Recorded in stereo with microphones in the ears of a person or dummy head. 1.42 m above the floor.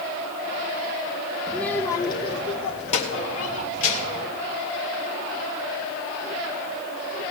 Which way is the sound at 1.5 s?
5° right (ahead or behind).